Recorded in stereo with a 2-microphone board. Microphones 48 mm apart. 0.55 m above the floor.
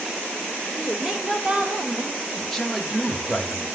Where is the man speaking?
Centre (ahead or behind), 1.1 m.